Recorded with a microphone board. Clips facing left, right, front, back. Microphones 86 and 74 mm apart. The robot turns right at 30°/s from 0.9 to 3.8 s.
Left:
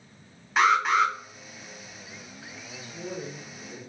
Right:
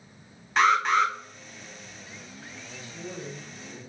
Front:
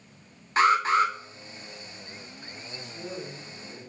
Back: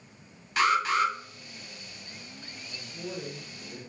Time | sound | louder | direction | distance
0.6 | an alarm | even, front 3 dB | 5° left | 0.7 m
2.8 | a man speaking | left 3 dB, even | 85° left | 1.0 m